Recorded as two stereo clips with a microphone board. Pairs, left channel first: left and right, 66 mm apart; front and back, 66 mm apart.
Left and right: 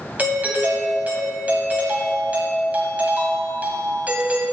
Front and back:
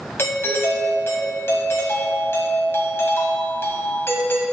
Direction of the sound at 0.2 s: 35° right.